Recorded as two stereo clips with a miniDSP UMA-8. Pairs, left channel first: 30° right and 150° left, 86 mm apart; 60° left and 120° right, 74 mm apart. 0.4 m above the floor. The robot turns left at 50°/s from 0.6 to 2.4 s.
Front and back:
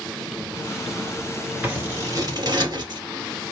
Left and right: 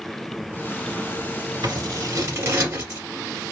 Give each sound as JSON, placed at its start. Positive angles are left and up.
{"t": 1.6, "sound": "scissors", "azimuth_deg": -135, "distance_m": 1.6}